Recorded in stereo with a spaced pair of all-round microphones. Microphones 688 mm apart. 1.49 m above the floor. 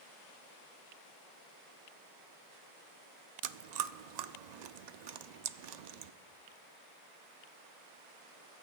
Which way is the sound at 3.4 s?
80° right.